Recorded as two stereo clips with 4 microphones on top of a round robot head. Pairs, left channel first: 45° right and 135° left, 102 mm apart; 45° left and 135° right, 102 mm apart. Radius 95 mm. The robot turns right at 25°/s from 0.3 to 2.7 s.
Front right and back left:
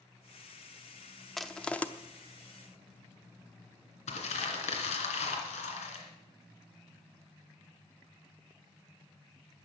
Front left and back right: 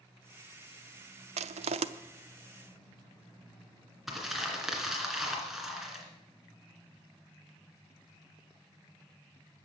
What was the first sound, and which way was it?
Crushing, 130° right.